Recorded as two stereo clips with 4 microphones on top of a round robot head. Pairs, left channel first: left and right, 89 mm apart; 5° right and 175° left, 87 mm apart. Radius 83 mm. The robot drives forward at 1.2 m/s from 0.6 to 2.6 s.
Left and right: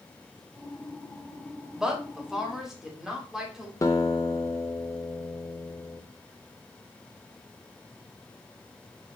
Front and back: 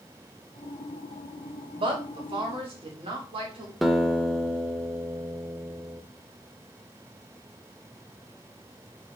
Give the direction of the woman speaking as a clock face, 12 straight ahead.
6 o'clock.